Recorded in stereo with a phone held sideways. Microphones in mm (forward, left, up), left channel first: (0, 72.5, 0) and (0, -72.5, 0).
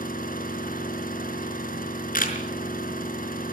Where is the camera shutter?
75° left (ahead or behind), 5 m.